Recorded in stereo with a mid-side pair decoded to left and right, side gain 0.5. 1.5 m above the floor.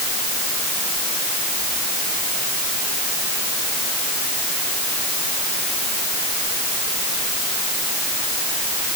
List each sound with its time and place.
Only background noise.